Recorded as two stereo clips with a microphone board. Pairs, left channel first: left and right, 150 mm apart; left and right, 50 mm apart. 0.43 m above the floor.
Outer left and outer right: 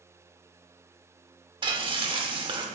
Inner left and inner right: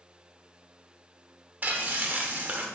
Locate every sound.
1.6 s frying: 30° right (ahead or behind), 0.6 m